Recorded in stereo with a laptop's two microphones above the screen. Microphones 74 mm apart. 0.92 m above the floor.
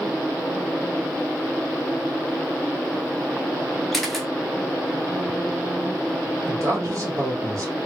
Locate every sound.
3.9 s a camera shutter: centre (ahead or behind), 0.6 m
6.5 s a man speaking: 45° right (ahead or behind), 1.5 m